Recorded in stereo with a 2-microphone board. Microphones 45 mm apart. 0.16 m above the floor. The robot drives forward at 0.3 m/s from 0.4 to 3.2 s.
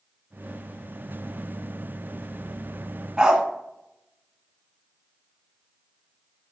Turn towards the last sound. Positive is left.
turn(degrees=-20)  # may be behind; listen again after turning